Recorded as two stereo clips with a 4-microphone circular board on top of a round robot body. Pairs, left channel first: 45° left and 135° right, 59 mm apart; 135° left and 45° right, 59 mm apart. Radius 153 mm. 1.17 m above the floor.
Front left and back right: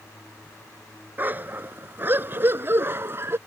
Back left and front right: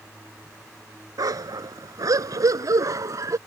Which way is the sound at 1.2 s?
70° right.